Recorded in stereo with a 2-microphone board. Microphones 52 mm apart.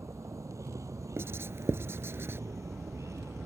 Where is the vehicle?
80° right; by 3.5 s 75° right (ahead or behind).